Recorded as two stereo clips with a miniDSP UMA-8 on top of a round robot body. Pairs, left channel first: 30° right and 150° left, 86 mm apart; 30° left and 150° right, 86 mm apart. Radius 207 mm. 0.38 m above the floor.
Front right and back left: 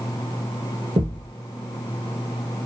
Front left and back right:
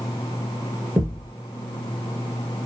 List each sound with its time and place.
1.0 s a thud: 145° left, 1.4 m